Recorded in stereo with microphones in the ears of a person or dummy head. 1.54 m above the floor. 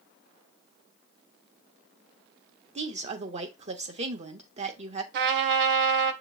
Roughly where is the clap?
No clap in this recording.